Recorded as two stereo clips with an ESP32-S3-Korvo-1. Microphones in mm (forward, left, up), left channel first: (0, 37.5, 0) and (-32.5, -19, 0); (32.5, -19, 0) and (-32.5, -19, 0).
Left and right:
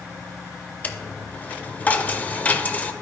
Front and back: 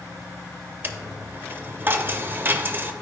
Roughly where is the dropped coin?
Behind left.